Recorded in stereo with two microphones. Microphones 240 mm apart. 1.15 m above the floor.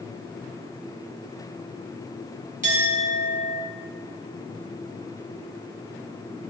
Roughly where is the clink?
Right.